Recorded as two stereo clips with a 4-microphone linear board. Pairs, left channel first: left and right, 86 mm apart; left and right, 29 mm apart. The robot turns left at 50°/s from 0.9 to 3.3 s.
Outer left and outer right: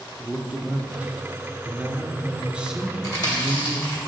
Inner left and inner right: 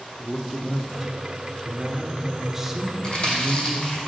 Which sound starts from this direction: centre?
A man speaking, at 0.2 s.